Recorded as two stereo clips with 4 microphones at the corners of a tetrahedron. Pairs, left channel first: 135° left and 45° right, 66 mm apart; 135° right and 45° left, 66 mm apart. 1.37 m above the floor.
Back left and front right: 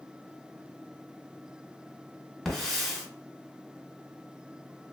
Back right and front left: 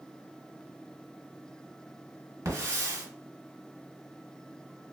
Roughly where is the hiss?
Ahead left.